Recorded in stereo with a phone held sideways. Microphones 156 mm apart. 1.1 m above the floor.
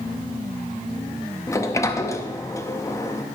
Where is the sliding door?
20° left (ahead or behind), 0.6 m.